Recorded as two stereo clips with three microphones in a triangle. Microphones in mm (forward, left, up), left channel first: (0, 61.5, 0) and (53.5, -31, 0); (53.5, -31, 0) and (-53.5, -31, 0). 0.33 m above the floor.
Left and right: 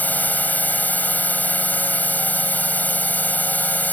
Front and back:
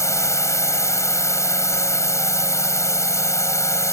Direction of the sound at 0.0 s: 50° left.